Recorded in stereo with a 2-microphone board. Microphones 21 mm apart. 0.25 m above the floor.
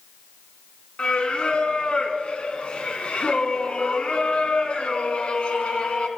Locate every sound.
1.0 s singing: 60° left (ahead or behind), 1.3 m